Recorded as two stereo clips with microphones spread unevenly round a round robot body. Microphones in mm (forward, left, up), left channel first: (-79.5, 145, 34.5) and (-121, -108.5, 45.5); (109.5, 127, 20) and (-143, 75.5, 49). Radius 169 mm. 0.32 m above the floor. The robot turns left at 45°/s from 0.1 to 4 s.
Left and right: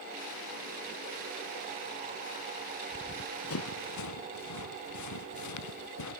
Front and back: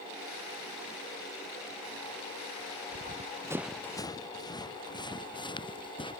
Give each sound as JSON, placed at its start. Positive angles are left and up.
{"t": 2.9, "sound": "running footsteps", "azimuth_deg": 140}